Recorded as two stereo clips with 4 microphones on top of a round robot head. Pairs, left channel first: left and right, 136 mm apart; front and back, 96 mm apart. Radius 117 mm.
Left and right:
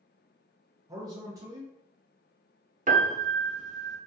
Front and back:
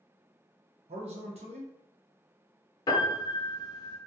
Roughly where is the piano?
Ahead right.